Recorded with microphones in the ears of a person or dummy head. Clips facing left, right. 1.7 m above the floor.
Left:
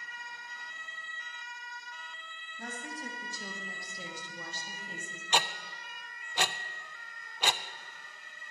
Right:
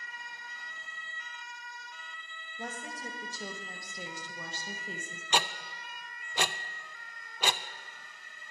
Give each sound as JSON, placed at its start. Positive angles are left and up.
{"t": 2.6, "sound": "a woman speaking", "side_deg": -20, "distance_m": 3.0}
{"t": 5.3, "sound": "ticking", "side_deg": -75, "distance_m": 0.6}